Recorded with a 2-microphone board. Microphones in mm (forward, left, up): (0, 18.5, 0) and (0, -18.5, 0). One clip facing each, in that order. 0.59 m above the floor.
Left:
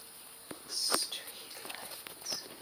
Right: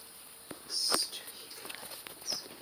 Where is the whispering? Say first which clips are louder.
Right 1 dB; 70° left (ahead or behind), 2.5 m.